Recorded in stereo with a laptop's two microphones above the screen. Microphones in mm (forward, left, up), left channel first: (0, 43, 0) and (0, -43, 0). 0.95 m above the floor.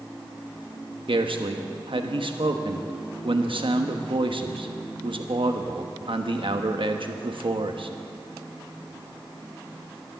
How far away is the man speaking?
About 1.2 m.